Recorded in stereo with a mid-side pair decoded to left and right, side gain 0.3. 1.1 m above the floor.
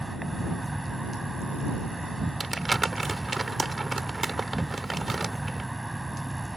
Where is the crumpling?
35° right.